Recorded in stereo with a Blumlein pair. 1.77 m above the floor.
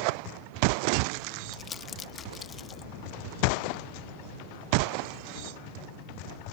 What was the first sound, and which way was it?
Crumpling, 20° left.